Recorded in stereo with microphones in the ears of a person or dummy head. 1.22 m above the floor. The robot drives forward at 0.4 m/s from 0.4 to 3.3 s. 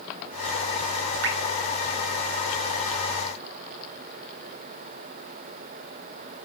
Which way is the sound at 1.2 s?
75° right (ahead or behind).